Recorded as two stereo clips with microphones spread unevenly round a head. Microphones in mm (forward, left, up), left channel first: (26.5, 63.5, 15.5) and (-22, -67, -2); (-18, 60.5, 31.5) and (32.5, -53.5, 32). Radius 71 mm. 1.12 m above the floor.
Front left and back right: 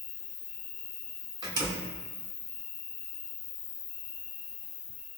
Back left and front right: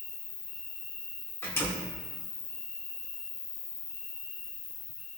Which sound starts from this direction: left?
An insect, at 0.0 s.